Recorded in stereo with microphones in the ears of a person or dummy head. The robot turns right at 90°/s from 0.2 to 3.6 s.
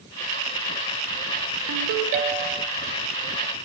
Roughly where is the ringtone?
Right.